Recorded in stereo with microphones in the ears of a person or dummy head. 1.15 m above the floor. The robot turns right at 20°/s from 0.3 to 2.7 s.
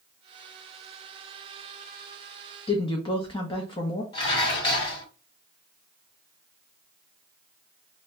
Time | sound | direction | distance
2.7 | a woman speaking | 25° left (ahead or behind) | 0.6 m
4.1 | dishes clattering | 35° left (ahead or behind) | 1.4 m